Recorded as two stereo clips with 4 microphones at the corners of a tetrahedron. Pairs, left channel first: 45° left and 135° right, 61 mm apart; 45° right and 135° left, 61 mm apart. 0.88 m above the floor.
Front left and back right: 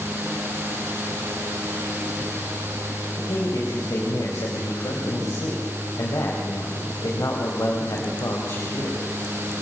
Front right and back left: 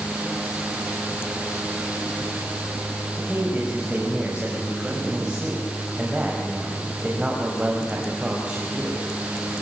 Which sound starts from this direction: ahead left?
A man speaking, at 3.2 s.